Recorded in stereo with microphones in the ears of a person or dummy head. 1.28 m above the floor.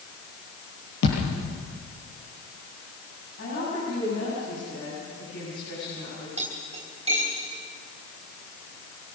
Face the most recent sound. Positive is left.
turn(degrees=-35)  # may be behind; listen again after turning